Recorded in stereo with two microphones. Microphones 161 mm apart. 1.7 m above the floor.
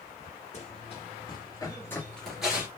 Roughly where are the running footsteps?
Left.